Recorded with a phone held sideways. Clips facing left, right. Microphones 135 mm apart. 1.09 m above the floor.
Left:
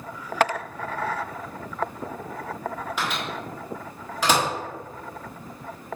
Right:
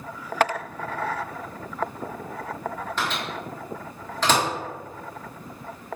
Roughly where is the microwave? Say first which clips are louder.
Right 1 dB; centre.